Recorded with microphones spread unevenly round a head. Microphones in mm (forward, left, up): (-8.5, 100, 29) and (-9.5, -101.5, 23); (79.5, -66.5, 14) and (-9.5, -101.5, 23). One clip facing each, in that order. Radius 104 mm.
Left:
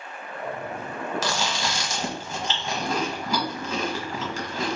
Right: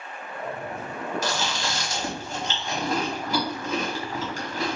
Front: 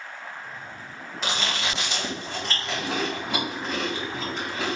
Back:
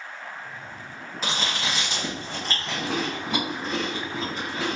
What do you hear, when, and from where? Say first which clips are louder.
1.2 s chewing: left 1 dB, even; 110° left, 1.4 m